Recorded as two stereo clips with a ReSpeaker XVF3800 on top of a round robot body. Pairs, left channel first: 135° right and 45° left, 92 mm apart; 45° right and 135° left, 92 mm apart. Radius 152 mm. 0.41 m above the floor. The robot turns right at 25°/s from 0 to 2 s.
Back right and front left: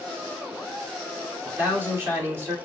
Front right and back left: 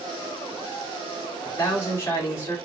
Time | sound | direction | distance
1.4 | a man speaking | 20° right | 1.7 m